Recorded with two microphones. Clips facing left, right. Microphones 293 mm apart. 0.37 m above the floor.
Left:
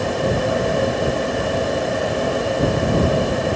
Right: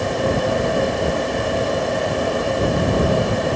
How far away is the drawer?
I don't hear a drawer.